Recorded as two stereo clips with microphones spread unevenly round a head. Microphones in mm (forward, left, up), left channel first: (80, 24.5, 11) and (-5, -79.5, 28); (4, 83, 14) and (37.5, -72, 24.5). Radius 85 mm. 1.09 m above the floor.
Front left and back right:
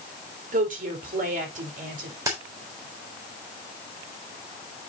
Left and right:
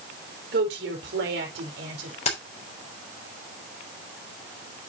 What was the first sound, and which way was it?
A woman speaking, 110° right.